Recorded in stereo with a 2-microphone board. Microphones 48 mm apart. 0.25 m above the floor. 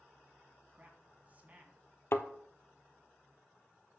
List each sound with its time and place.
0.7 s a man speaking: 35° right (ahead or behind), 2.5 m
2.1 s a thud: 55° left (ahead or behind), 0.7 m